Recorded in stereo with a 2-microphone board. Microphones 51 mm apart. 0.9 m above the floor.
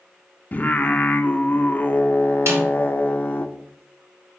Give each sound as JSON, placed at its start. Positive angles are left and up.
{"t": 0.5, "sound": "singing", "side_deg": 30, "distance_m": 0.5}
{"t": 2.5, "sound": "a snare drum", "side_deg": -60, "distance_m": 2.5}